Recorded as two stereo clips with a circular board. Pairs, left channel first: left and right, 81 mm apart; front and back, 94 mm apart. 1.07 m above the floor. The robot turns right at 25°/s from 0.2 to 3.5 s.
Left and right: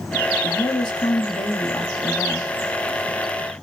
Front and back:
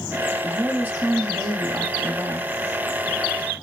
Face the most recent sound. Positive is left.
turn(degrees=175)